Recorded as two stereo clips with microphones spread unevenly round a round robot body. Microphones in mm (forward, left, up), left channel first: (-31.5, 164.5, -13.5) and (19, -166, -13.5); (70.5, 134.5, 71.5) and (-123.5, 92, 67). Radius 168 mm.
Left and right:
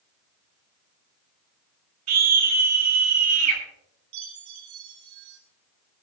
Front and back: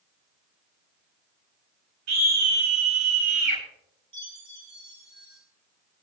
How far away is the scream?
About 8.5 m.